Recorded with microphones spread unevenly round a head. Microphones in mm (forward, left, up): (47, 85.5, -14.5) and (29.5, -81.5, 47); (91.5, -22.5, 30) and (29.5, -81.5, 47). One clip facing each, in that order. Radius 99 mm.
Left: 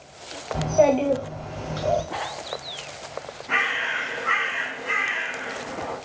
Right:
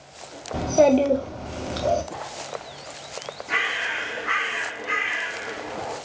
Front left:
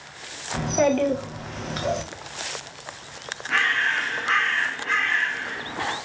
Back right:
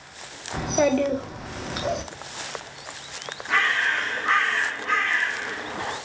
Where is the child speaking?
50° right, 0.7 m.